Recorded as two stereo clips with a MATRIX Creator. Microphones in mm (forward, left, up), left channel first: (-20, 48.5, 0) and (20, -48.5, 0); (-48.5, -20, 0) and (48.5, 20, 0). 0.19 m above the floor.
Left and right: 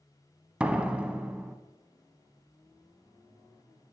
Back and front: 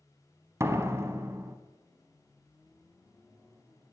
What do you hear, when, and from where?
0.6 s a door slam: straight ahead, 0.8 m